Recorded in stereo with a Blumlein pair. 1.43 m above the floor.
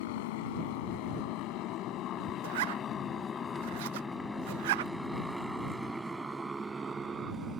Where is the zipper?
55° right.